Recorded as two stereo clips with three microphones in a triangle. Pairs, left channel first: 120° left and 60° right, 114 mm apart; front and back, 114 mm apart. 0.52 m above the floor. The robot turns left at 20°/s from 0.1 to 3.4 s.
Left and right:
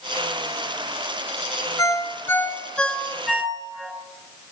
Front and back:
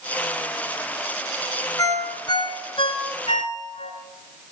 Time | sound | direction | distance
1.8 | a ringtone | 60° left | 3 m